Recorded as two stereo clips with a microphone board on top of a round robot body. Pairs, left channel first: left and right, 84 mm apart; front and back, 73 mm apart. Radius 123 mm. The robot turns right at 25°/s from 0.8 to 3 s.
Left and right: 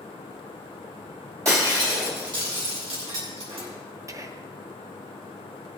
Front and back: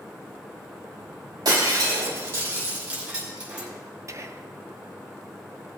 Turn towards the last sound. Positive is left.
turn(degrees=-135)